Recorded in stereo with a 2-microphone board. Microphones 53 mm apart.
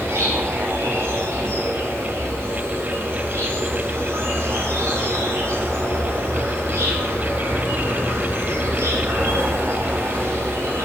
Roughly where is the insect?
Right.